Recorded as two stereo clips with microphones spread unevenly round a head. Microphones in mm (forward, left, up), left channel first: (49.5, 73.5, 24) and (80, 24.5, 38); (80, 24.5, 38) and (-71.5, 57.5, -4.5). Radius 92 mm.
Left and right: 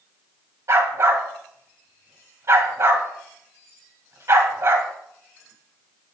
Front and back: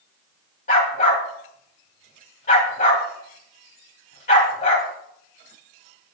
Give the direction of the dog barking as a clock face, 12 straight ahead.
1 o'clock.